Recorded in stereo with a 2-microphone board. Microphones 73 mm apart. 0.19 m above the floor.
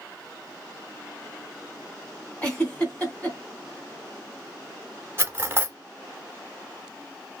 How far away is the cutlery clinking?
About 0.7 m.